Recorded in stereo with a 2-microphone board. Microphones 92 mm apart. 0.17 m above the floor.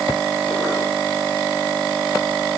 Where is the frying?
No frying in this recording.